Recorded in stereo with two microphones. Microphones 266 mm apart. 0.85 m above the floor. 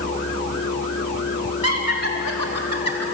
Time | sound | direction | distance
1.6 | laughter | 65° right (ahead or behind) | 4 m